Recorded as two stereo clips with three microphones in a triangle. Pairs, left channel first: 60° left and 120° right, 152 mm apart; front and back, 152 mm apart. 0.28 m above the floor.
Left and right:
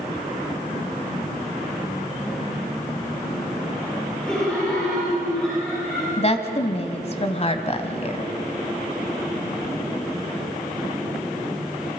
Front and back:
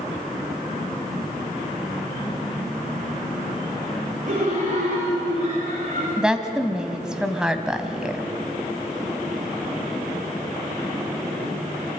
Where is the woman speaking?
95° left, 1.6 m.